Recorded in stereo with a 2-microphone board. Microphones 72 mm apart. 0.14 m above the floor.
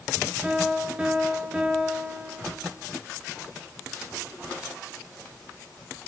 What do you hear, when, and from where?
0.4 s a piano: 15° right (ahead or behind), 1.1 m